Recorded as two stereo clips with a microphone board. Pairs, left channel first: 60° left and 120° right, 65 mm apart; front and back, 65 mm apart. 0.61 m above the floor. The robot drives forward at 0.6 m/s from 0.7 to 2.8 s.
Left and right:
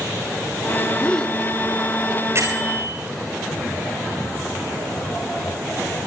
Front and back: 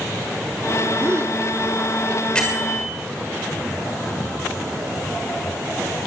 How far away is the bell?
About 6 m.